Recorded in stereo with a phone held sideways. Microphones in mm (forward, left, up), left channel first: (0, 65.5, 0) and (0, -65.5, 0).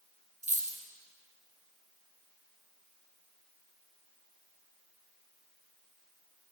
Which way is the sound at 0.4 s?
65° right (ahead or behind).